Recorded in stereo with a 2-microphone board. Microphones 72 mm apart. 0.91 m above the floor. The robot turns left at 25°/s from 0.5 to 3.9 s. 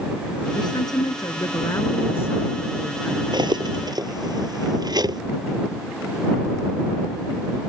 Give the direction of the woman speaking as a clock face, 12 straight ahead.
10 o'clock.